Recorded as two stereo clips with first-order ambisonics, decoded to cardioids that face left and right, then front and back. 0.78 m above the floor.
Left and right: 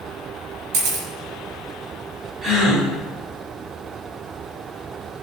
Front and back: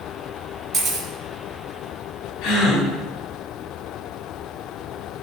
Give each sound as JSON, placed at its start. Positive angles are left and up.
{"t": 0.7, "sound": "a camera shutter", "azimuth_deg": -105, "distance_m": 3.5}
{"t": 2.4, "sound": "a gasp", "azimuth_deg": -30, "distance_m": 4.0}